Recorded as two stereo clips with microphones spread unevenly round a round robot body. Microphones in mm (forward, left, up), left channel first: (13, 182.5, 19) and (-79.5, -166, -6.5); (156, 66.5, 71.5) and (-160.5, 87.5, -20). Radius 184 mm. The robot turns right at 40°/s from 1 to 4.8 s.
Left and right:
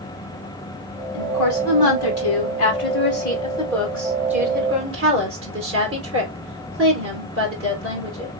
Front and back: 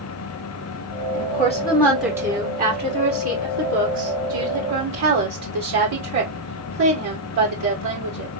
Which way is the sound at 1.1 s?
60° left.